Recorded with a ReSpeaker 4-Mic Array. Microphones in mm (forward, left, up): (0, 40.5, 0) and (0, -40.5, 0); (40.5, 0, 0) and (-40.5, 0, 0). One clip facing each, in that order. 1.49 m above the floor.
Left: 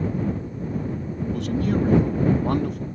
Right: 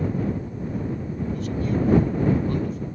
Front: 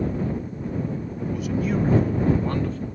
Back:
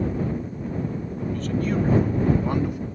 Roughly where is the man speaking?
Left.